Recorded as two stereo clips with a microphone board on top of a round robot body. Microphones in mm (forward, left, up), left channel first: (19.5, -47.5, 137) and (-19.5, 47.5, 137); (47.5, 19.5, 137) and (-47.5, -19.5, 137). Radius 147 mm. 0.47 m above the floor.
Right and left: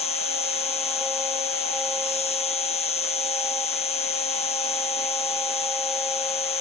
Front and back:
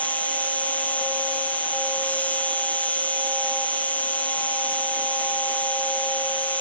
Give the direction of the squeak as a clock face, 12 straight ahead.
I don't hear a squeak.